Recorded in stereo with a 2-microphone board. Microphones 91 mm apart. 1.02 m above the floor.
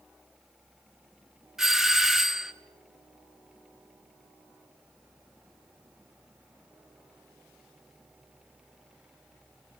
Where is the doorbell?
5° right (ahead or behind), 1.1 m.